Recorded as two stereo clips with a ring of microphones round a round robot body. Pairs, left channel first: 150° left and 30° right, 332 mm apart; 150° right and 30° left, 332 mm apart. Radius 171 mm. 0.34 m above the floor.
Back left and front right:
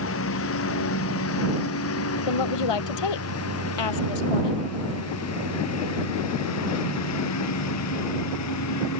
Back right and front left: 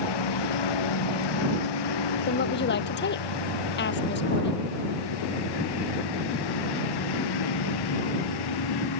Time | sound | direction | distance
0.0 | a lawn mower | 160° right | ?
2.3 | a woman speaking | 150° left | ?